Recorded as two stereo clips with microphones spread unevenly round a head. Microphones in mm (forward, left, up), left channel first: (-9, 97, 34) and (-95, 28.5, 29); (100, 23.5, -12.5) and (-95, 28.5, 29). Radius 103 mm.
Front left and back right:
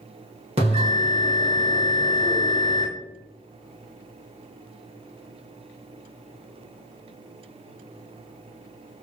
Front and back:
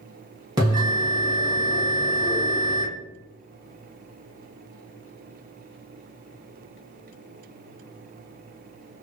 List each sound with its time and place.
0.6 s a bell: 105° right, 1.1 m